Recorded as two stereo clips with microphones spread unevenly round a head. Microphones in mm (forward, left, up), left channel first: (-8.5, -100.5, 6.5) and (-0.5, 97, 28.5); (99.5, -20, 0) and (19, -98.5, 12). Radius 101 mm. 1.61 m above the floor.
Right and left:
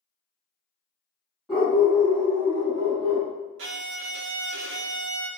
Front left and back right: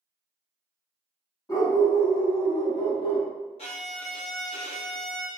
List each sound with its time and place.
1.5 s a dog barking: 5° left, 1.4 m; by 3.3 s 25° left, 2 m
3.6 s a violin: 100° left, 0.6 m